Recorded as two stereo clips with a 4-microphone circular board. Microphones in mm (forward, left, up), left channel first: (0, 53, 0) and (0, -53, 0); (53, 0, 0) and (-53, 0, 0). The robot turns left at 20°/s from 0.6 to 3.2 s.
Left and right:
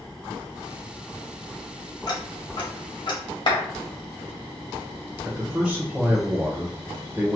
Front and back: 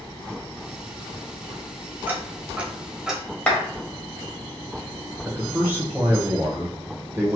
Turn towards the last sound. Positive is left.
turn(degrees=-150)